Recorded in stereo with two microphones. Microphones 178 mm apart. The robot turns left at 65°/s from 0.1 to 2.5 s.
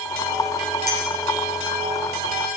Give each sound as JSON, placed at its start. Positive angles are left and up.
{"t": 0.9, "sound": "a clink", "side_deg": -60, "distance_m": 2.5}